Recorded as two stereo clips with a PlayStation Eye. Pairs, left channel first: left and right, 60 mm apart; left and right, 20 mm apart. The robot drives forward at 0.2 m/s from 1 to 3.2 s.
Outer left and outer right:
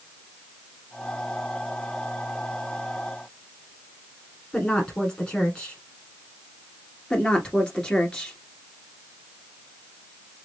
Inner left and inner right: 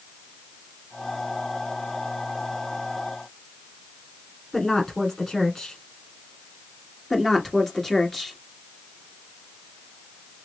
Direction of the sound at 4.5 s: 15° left (ahead or behind).